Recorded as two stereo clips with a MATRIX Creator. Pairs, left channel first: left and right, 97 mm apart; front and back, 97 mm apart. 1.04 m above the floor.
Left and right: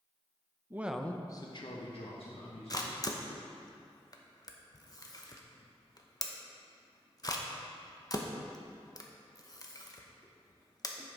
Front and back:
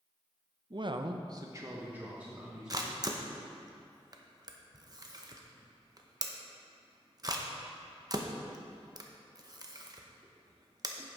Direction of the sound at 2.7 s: 135° left.